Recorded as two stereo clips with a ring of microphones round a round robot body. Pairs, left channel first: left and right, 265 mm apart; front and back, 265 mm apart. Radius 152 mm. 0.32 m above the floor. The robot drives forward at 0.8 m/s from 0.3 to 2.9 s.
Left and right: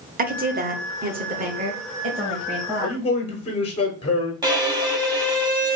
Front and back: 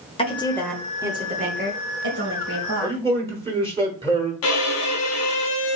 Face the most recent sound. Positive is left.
turn(degrees=-15)